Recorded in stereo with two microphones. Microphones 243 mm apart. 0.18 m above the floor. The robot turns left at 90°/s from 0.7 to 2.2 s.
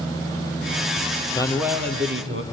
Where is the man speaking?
20° left, 3.5 m; by 2.4 s 55° right, 3.5 m.